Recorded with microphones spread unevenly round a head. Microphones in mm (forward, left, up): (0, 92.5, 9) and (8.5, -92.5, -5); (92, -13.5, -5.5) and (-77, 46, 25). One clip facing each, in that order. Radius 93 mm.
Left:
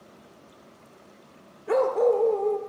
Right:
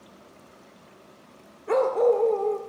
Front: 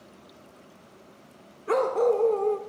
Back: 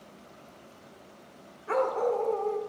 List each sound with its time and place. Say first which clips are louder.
1.7 s a dog barking: right 1 dB, front 4 dB; 15° left, 1.0 m